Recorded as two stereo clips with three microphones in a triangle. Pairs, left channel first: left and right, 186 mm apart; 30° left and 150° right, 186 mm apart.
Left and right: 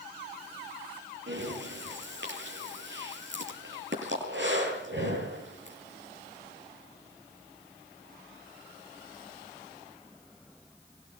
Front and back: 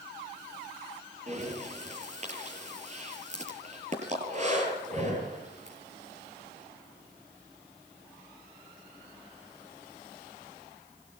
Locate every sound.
1.3 s breathing: 100° right, 8 m